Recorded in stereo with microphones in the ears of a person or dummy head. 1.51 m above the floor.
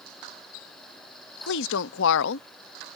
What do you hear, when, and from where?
1.5 s a woman speaking: 70° left (ahead or behind)